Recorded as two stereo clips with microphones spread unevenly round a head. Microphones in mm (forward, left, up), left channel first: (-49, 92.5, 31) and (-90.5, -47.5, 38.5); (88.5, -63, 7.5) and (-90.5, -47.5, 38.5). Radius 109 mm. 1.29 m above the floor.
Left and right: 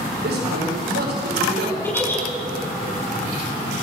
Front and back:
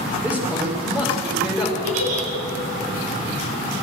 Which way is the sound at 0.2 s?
100° right.